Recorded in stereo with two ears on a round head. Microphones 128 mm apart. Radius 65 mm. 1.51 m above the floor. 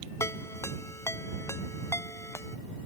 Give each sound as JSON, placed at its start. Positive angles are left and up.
{"t": 0.2, "sound": "a ringtone", "side_deg": 20}